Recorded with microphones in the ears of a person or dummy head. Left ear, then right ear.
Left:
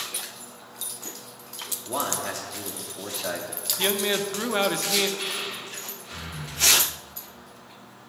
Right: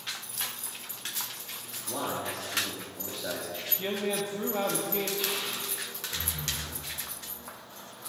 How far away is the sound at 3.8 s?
About 0.8 m.